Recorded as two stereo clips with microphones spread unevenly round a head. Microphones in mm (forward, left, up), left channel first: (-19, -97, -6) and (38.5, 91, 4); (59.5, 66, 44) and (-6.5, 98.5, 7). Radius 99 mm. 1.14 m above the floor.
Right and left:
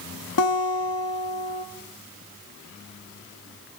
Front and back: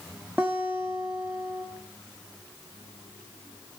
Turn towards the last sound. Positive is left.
turn(degrees=-120)